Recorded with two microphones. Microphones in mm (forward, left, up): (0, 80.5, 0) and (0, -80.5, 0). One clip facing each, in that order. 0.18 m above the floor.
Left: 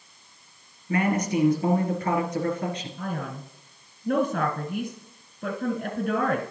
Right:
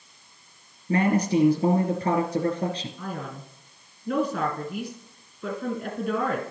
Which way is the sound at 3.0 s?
55° left (ahead or behind).